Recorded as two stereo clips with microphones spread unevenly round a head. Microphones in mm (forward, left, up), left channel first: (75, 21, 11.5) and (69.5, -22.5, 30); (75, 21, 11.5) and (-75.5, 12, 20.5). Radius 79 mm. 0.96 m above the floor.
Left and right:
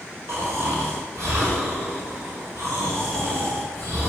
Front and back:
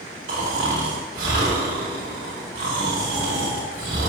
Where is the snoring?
160° right, 2.5 m.